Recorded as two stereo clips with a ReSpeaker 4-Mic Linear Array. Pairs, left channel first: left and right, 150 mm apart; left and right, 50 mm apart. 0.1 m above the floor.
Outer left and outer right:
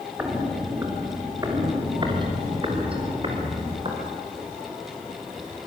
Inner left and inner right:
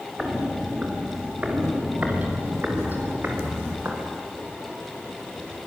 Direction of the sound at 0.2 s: 15° right (ahead or behind).